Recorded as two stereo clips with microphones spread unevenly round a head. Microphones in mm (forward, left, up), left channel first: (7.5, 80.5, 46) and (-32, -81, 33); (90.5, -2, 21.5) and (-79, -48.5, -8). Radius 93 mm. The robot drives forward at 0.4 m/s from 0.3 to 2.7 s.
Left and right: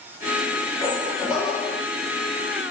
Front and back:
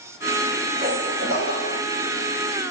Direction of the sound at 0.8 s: 135° left.